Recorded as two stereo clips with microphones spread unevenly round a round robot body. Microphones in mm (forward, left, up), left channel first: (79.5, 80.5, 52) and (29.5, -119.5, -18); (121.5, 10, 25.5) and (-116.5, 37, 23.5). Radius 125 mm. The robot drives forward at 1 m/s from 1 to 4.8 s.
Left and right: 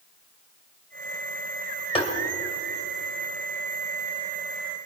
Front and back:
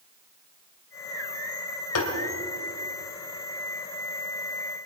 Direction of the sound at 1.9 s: 5° left.